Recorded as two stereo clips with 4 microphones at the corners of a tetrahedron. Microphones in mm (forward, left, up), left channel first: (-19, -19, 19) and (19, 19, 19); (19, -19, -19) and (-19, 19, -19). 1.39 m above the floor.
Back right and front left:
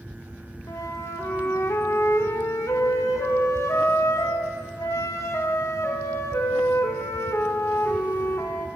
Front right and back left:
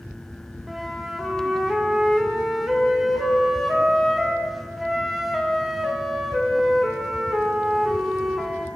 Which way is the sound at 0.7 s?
140° right.